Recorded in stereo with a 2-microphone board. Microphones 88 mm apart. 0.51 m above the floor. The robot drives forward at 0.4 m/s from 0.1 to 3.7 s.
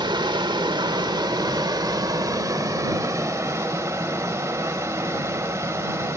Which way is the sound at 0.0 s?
65° right (ahead or behind).